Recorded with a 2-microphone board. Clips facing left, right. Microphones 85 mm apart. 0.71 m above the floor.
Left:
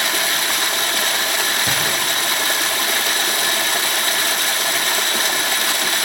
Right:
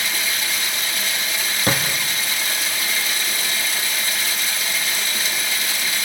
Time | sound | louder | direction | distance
0.0 | running water | left 5 dB | 65° left (ahead or behind) | 1.3 m
1.7 | a thud | right 1 dB | 45° right (ahead or behind) | 4.5 m